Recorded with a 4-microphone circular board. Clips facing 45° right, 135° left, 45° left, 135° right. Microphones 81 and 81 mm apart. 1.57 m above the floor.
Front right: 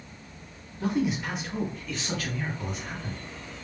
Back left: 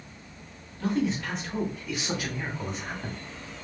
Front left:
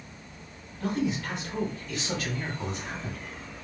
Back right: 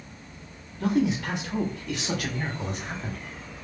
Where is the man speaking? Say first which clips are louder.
Even, back right 5 dB; 115° right, 1.2 m; by 3.2 s 175° right, 1.3 m.